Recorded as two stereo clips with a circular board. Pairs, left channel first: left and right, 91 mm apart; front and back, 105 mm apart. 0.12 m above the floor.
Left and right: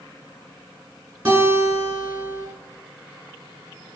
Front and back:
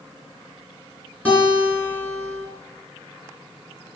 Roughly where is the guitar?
Ahead right.